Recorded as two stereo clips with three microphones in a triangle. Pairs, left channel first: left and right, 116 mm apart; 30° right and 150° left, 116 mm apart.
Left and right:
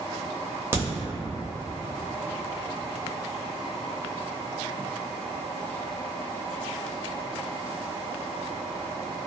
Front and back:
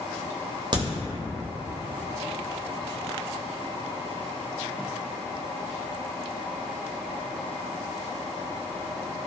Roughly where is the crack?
Behind.